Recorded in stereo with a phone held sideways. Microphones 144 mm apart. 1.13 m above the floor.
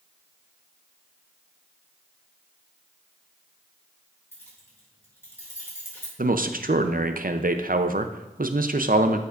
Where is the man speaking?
75° right (ahead or behind), 0.6 m.